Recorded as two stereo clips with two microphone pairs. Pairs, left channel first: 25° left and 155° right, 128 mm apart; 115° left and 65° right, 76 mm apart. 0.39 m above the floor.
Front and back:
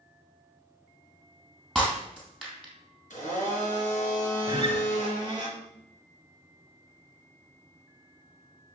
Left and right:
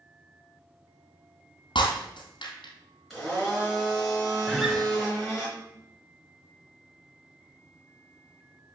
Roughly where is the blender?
Ahead left.